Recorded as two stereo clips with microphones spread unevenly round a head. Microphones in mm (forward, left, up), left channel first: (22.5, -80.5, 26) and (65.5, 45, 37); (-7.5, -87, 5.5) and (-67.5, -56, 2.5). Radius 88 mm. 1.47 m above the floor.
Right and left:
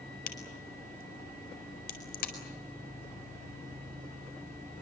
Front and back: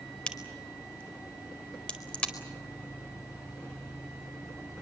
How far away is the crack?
About 4.5 m.